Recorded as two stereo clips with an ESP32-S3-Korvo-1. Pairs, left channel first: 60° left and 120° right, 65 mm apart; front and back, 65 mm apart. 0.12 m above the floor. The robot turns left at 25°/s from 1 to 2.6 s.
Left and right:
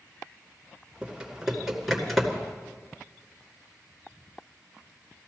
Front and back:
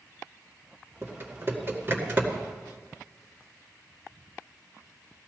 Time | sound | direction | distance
1.0 | typing on a keyboard | 170° left | 2 m